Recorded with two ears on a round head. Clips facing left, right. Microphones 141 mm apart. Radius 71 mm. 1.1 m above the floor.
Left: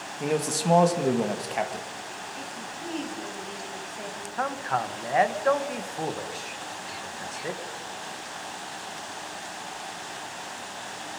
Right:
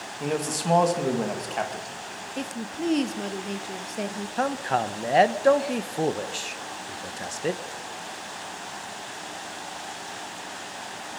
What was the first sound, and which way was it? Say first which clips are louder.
A man speaking: left 1 dB; 5° left (ahead or behind).